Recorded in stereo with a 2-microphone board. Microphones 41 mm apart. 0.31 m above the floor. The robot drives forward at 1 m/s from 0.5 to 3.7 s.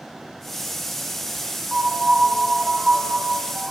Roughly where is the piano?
Right.